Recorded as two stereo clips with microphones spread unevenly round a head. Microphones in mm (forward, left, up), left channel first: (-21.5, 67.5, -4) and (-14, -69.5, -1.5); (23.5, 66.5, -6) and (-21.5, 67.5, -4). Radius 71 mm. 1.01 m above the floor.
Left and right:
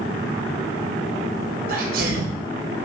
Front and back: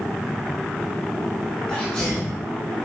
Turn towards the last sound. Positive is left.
turn(degrees=-80)